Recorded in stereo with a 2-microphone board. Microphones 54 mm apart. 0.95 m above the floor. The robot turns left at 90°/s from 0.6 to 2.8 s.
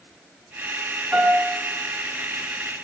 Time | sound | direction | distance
1.1 | a piano | 165° right | 4.5 m